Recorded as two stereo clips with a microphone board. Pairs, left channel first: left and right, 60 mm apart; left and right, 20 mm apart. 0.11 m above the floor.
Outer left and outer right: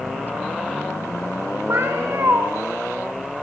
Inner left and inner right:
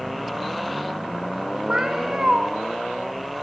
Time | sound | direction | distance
1.7 | a cat meowing | 50° right (ahead or behind) | 5 m